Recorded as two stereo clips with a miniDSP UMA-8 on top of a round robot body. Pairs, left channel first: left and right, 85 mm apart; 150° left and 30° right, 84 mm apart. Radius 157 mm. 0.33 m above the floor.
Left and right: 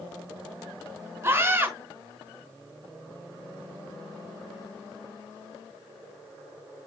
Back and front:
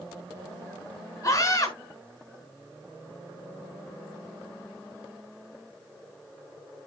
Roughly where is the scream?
Behind.